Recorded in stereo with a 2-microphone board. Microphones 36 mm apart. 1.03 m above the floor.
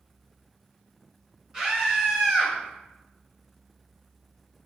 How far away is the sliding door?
No sliding door in this recording.